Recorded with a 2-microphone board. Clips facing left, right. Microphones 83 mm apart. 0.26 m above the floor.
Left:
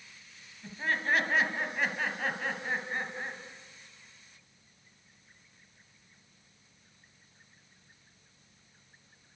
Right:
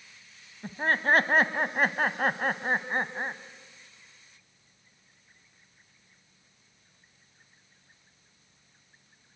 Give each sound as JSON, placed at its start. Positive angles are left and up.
{"t": 0.6, "sound": "laughter", "side_deg": -45, "distance_m": 1.5}